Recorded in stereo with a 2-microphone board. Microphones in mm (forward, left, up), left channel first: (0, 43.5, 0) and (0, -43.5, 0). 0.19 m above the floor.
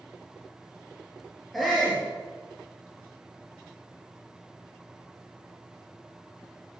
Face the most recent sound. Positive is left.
turn(degrees=0)  # may be behind; listen again after turning